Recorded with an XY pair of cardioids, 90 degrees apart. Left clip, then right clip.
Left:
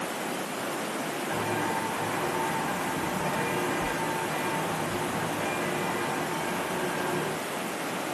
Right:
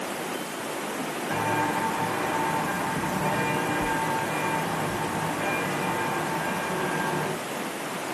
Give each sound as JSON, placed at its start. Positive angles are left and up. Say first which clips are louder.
{"t": 1.3, "sound": "footsteps", "louder": "right 4 dB", "azimuth_deg": -35, "distance_m": 5.0}